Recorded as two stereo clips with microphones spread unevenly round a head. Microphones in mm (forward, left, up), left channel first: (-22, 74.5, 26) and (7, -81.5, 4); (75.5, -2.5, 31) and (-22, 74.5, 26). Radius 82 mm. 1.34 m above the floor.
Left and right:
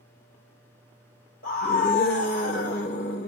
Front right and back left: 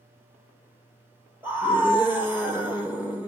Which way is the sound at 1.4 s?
65° left.